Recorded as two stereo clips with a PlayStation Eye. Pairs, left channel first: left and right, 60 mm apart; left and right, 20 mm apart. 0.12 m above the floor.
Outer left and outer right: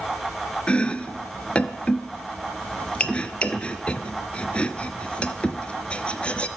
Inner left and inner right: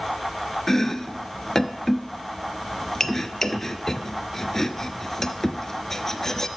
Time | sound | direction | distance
0.7 | chopping | 20° left (ahead or behind) | 0.7 m